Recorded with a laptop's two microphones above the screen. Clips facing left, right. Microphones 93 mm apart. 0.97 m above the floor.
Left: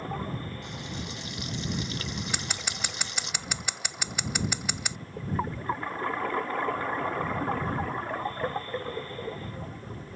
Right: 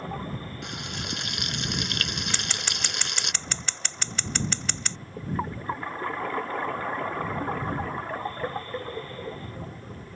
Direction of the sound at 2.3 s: 10° left (ahead or behind).